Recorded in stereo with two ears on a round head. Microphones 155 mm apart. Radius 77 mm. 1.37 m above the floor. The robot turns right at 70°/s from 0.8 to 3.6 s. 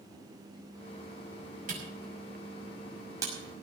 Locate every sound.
1.7 s a camera shutter: 50° right (ahead or behind), 6 m; by 3.3 s 10° right (ahead or behind), 6 m